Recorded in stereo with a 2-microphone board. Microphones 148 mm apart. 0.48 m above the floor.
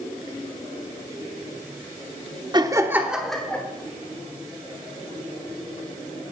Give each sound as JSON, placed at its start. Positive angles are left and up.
{"t": 2.5, "sound": "laughter", "side_deg": -30, "distance_m": 1.0}